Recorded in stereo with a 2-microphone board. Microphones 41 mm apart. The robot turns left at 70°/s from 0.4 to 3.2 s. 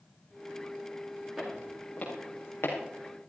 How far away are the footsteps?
About 6 m.